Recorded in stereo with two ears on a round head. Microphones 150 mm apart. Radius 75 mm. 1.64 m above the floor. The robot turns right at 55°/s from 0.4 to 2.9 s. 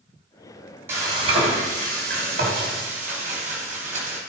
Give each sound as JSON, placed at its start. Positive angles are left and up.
{"t": 0.9, "sound": "frying", "azimuth_deg": -165, "distance_m": 3.0}